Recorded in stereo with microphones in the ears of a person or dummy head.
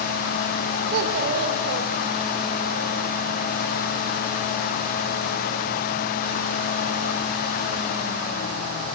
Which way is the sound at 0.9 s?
60° right (ahead or behind).